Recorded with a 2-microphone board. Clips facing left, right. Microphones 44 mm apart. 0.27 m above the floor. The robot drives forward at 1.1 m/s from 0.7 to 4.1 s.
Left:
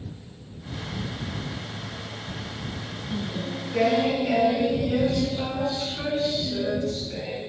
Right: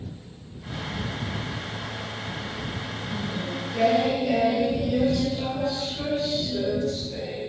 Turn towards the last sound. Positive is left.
turn(degrees=45)  # may be behind; listen again after turning